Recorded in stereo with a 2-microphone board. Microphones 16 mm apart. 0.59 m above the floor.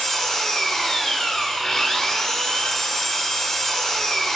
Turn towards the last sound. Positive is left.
turn(degrees=35)  # may be behind; listen again after turning